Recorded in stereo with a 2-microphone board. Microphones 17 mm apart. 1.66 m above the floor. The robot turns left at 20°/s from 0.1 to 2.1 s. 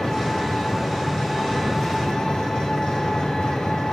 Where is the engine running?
115° left, 2.5 m; by 3.9 s 75° left, 2.5 m.